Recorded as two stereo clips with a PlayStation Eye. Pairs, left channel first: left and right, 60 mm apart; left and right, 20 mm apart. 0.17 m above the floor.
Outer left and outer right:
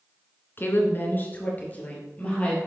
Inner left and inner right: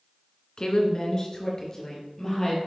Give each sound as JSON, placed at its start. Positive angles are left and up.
{"t": 0.6, "sound": "a woman speaking", "side_deg": 35, "distance_m": 2.0}